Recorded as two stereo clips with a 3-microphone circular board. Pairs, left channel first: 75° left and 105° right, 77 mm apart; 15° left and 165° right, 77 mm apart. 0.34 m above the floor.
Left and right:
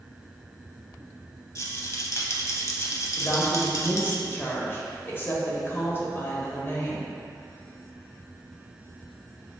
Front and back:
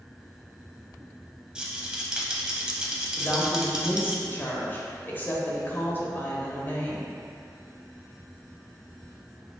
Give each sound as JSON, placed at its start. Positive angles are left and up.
{"t": 1.6, "sound": "a rattle", "azimuth_deg": 120, "distance_m": 0.6}
{"t": 3.2, "sound": "a woman speaking", "azimuth_deg": 50, "distance_m": 1.0}